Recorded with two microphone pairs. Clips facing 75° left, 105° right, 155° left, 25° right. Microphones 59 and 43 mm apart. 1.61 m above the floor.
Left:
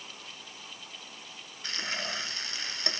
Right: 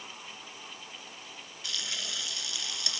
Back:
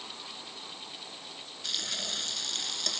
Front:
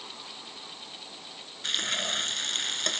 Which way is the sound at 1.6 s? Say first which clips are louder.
Left 4 dB, front 6 dB; 25° left.